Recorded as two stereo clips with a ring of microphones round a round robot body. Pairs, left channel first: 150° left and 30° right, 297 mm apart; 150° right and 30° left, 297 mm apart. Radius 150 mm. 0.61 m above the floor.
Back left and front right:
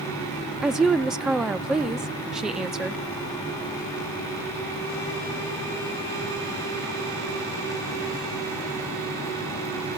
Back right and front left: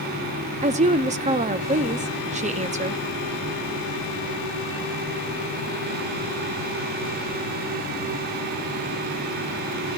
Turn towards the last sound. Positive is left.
turn(degrees=55)